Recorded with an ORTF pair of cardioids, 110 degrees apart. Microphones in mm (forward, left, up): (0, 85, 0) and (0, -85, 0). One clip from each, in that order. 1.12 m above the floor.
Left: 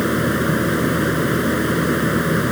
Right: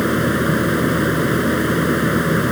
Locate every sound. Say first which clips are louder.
0.0 s a fan: right 1 dB; 15° right